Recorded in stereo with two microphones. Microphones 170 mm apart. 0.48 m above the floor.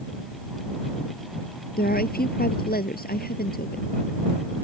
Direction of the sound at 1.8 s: 60° left (ahead or behind).